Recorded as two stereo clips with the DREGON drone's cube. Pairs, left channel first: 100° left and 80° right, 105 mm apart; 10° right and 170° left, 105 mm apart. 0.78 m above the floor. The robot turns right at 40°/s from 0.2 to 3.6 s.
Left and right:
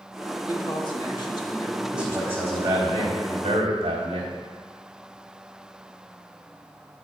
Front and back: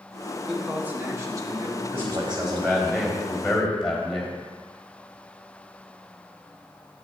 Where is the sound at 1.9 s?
160° right, 3.5 m; by 4.3 s 95° right, 3.5 m.